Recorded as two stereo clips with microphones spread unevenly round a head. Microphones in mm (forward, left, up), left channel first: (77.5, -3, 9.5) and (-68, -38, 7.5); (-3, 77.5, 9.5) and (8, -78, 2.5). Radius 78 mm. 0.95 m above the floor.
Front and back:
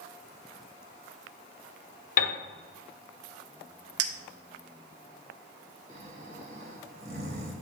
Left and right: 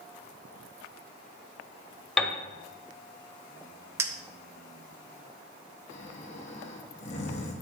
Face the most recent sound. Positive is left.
turn(degrees=145)